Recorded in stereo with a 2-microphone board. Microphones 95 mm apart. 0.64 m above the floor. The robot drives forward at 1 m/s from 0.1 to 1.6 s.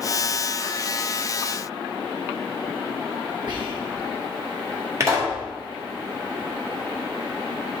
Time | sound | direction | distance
3.5 | whispering | 55° right (ahead or behind) | 1.4 m
5.0 | a pop | 35° right (ahead or behind) | 1.5 m